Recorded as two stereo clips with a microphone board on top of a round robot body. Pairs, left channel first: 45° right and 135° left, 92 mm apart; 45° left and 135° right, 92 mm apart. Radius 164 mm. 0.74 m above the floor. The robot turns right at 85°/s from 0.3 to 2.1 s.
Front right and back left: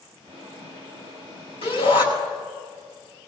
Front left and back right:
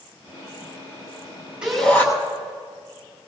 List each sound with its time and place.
1.6 s a shout: 55° right, 5.5 m; by 2.0 s 15° right, 5.5 m